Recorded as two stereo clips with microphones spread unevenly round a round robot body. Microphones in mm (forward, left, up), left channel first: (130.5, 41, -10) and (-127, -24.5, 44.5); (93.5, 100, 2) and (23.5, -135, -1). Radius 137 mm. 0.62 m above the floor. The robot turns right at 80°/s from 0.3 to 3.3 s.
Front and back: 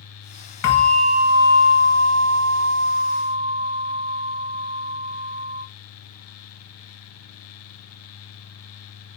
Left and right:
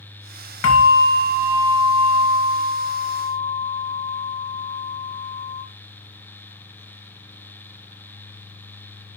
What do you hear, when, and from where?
0.6 s a bell: 50° left, 1.1 m; by 5.6 s 95° right, 1.1 m